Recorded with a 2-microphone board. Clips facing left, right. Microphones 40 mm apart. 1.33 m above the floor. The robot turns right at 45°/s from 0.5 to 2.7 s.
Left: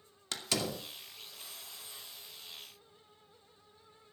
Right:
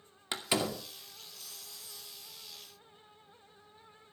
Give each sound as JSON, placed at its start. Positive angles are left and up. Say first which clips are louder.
{"t": 0.3, "sound": "a door slam", "louder": "right 3 dB", "side_deg": -20, "distance_m": 2.5}